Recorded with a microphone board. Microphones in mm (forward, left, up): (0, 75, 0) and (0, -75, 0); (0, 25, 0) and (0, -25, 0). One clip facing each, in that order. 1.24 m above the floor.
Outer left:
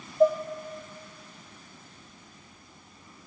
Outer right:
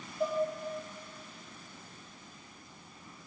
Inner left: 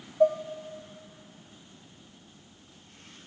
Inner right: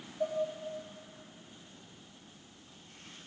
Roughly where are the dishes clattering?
Left.